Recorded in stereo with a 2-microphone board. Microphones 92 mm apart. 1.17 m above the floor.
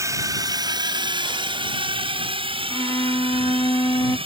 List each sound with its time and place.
0.0 s a drone: 35° right (ahead or behind); by 4.3 s 75° right (ahead or behind)
2.7 s a violin: 40° left (ahead or behind)